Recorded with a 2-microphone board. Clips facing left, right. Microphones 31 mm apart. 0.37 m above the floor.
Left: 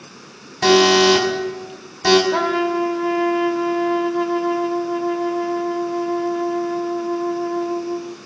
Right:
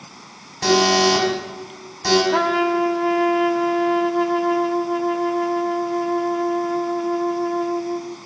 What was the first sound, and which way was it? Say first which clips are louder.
An alarm: left 3 dB; 30° left (ahead or behind).